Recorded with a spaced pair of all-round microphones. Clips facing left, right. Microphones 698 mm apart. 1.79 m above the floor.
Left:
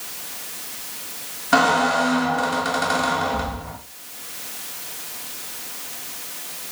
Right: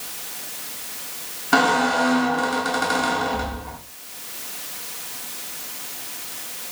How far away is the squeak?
About 1.3 m.